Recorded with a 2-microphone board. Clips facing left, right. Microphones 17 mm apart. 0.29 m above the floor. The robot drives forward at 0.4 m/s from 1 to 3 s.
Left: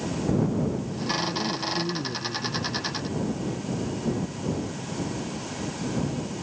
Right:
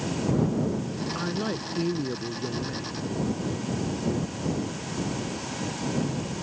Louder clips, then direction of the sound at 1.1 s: Left 1 dB; 65° right (ahead or behind).